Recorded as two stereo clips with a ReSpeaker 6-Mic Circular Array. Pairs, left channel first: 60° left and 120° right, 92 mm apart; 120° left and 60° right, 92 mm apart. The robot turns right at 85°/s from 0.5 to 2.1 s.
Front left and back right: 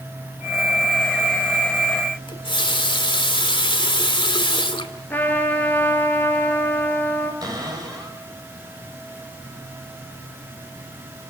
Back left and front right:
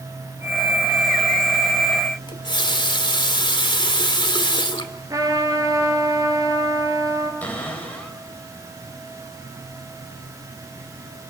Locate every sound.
2.3 s a running tap: 85° left, 2 m
5.1 s a trumpet: 10° right, 4 m
7.4 s a cupboard door: 165° right, 6 m